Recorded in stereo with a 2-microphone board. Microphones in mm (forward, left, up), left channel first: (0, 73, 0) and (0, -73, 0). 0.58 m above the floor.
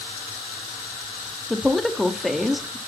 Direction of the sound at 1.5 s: Centre (ahead or behind).